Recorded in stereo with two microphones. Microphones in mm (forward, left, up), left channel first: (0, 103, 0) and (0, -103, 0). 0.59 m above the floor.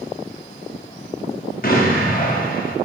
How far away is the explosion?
About 0.6 m.